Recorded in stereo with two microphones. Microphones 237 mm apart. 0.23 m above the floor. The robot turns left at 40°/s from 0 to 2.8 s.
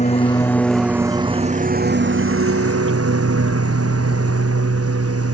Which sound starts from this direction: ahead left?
A lawn mower, at 0.0 s.